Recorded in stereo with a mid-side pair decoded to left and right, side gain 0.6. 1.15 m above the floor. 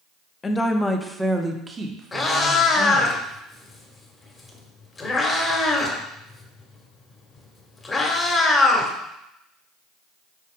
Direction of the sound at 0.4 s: 25° left.